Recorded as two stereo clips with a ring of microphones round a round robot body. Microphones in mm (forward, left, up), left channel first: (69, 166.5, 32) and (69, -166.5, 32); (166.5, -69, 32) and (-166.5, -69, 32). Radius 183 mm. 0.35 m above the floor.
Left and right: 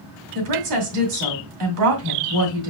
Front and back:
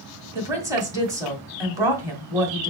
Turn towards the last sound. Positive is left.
turn(degrees=-100)